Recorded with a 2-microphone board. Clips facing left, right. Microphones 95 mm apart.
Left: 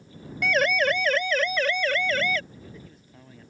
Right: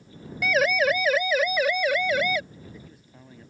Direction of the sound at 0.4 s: 5° right (ahead or behind).